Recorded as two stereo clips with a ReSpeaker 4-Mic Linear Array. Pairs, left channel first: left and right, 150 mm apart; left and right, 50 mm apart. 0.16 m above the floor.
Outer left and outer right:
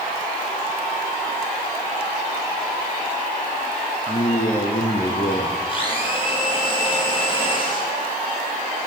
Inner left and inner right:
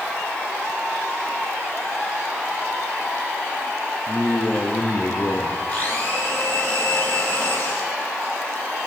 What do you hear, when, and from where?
4.1 s a man speaking: 45° left (ahead or behind), 3 m
5.7 s a blender: 35° left (ahead or behind), 8.5 m